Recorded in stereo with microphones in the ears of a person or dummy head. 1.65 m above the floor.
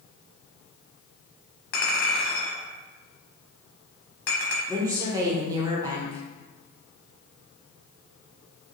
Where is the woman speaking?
20° right (ahead or behind), 1.0 m.